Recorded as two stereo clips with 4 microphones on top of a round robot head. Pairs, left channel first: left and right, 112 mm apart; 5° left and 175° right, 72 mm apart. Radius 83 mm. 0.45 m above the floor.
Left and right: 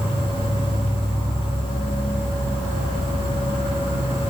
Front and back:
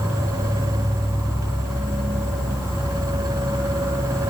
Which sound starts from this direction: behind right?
An insect, at 0.0 s.